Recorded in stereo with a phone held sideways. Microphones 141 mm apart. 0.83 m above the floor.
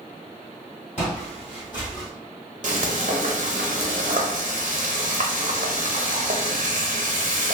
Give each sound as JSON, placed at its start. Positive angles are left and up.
{"t": 1.0, "sound": "footsteps", "side_deg": 50, "distance_m": 2.0}
{"t": 2.6, "sound": "frying", "side_deg": -60, "distance_m": 0.7}